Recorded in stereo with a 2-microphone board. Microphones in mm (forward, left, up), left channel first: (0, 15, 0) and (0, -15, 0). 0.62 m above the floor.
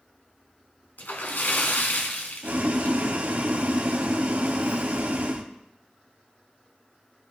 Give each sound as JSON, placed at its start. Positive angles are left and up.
{"t": 1.0, "sound": "a splash", "side_deg": 70, "distance_m": 1.3}
{"t": 2.4, "sound": "boiling", "side_deg": -70, "distance_m": 1.2}